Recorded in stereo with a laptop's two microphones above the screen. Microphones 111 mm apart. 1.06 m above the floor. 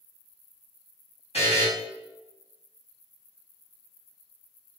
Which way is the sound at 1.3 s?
65° left (ahead or behind).